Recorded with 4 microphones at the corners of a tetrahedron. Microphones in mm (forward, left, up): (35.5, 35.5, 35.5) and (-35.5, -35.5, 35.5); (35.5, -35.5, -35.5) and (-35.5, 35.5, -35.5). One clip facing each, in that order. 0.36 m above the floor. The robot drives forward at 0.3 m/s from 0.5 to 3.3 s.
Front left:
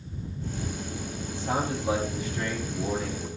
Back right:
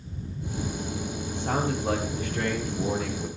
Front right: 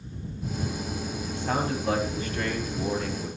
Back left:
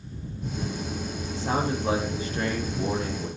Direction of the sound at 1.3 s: 165° right.